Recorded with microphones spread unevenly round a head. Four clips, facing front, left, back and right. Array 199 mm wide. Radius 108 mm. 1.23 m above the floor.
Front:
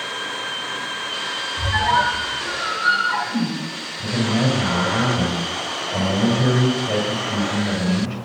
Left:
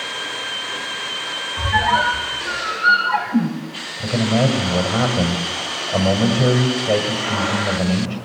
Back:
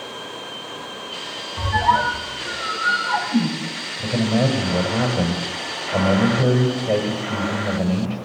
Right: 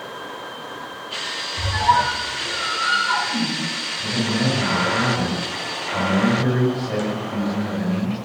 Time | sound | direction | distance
1.6 | a squeak | 150° left | 6 m
4.0 | a man speaking | 140° left | 7.5 m